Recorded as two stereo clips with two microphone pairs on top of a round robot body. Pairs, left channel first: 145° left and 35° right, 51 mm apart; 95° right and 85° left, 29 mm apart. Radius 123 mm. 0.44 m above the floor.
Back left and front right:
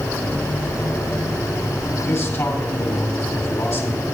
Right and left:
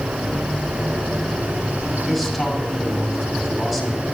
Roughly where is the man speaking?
Behind.